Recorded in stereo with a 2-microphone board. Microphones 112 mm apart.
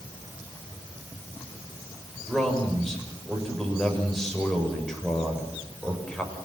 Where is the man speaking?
5° left (ahead or behind), 6.5 m.